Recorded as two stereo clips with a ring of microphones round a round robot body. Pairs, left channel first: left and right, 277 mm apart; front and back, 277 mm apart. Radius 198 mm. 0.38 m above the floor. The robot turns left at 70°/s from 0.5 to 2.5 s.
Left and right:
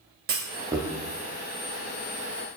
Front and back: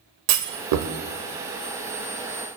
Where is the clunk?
150° right, 0.6 m; by 0.9 s straight behind, 0.6 m.